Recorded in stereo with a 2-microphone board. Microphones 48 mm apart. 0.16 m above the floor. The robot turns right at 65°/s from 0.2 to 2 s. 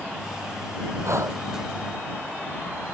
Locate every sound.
1.0 s breathing: 75° right (ahead or behind); by 1.4 s 55° right (ahead or behind)